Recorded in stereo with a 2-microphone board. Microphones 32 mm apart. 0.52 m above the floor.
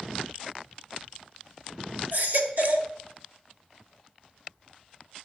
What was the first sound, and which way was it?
A baby crying, 60° right (ahead or behind).